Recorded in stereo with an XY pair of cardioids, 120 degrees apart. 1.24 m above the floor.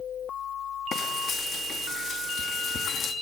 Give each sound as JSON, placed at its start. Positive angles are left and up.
{"t": 0.9, "sound": "frying", "azimuth_deg": 50, "distance_m": 2.5}